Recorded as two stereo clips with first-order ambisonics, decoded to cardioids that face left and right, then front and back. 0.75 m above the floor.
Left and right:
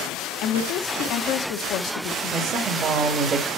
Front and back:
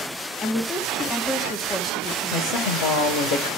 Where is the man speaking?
20° right, 2.5 m.